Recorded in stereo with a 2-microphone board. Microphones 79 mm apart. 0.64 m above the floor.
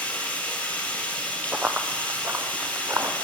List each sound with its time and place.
0.0 s running water: 20° left (ahead or behind), 3.5 m
1.5 s running footsteps: 15° right (ahead or behind), 0.8 m; by 3.1 s 40° right (ahead or behind), 2.5 m